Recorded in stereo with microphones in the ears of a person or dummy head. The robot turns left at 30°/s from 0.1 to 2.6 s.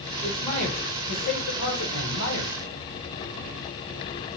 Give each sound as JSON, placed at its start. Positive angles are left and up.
{"t": 0.2, "sound": "a man speaking", "azimuth_deg": 155, "distance_m": 1.9}